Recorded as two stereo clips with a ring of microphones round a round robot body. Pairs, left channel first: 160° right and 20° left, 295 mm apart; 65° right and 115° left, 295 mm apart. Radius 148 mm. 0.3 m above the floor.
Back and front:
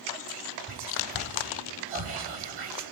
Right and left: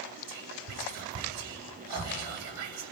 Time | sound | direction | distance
0.3 | whispering | 70° left | 6 m